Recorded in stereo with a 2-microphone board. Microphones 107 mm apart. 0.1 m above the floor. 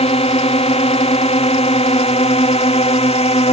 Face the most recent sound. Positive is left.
turn(degrees=70)  # may be behind; listen again after turning